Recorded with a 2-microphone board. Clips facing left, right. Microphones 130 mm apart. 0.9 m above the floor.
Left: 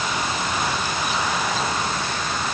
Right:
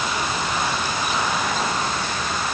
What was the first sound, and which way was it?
Only background noise.